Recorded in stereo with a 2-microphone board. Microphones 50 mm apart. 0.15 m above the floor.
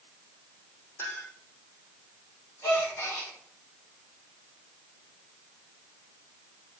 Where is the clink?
55° left (ahead or behind), 4.5 m.